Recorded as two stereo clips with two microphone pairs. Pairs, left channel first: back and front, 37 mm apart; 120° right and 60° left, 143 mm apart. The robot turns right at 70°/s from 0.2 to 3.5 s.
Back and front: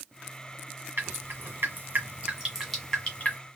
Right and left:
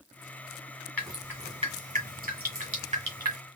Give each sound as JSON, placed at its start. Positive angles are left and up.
{"t": 1.0, "sound": "dripping", "azimuth_deg": -40, "distance_m": 1.7}